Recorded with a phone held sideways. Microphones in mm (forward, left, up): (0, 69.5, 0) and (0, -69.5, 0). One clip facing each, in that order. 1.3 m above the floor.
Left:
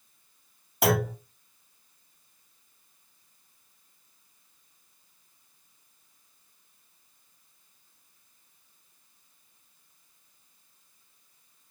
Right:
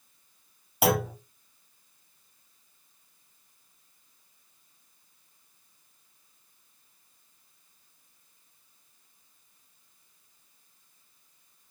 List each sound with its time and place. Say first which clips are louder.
0.8 s a clunk: even; 5° right (ahead or behind), 1.9 m